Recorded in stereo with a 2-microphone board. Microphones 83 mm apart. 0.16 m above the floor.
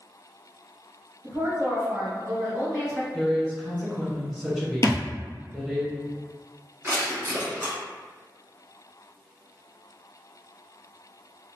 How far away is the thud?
About 0.5 m.